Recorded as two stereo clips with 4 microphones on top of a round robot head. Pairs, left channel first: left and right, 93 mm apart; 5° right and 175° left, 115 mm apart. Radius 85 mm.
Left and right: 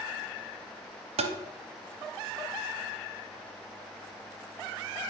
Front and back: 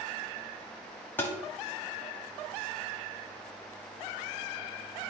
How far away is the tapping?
About 0.8 m.